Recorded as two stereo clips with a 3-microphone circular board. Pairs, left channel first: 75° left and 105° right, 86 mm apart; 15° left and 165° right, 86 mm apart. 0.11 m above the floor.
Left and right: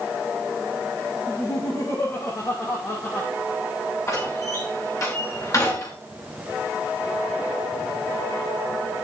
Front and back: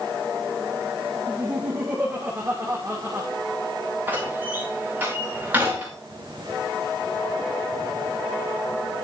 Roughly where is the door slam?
Behind left.